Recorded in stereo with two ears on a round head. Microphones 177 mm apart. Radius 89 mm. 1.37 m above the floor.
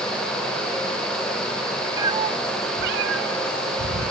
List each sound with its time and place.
2.0 s a cat meowing: 15° right (ahead or behind), 0.9 m; by 4.1 s 65° right (ahead or behind), 3 m